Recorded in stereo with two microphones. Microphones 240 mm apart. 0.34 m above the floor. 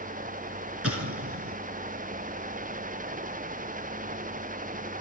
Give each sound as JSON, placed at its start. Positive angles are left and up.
{"t": 0.8, "sound": "an explosion", "side_deg": -70, "distance_m": 2.0}